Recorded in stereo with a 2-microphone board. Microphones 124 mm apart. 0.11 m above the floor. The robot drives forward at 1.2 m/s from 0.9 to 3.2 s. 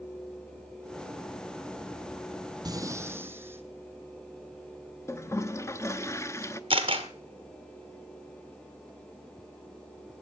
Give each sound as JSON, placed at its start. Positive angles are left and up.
{"t": 2.6, "sound": "breathing", "side_deg": -35, "distance_m": 0.8}
{"t": 5.1, "sound": "a toilet flushing", "side_deg": 25, "distance_m": 0.7}
{"t": 6.7, "sound": "a camera shutter", "side_deg": -45, "distance_m": 1.6}